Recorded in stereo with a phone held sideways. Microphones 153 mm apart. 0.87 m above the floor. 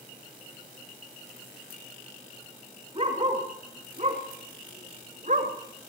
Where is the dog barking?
35° right (ahead or behind), 4.5 m; by 5.5 s 55° right (ahead or behind), 4 m.